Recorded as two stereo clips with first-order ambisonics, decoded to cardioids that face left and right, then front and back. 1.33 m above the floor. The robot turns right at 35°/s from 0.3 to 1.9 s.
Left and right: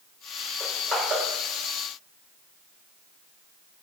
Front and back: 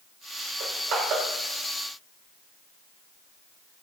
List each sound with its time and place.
0.6 s crushing: 165° right, 2.0 m; by 1.2 s 145° right, 2.0 m